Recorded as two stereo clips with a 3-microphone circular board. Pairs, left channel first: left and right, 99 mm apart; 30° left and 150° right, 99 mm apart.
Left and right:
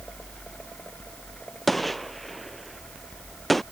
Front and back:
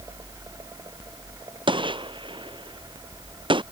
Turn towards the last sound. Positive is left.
turn(degrees=180)